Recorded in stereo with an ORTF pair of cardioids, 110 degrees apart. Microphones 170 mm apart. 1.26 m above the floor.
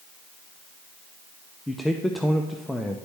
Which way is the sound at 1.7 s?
Straight ahead.